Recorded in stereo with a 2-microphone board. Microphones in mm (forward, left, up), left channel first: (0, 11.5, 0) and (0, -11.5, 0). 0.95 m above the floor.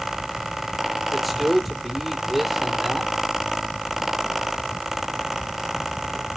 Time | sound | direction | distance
1.1 | a man speaking | 5° right (ahead or behind) | 2 m